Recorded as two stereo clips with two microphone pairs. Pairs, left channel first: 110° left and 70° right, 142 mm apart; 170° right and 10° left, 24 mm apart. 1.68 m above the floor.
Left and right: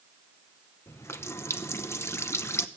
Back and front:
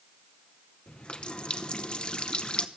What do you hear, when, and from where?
0.9 s a running tap: 175° left, 0.8 m